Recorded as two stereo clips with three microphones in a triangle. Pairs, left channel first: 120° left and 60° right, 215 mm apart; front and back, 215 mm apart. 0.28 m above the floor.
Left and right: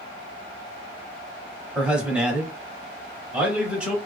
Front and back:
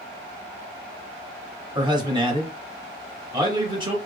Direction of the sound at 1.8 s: 140° right.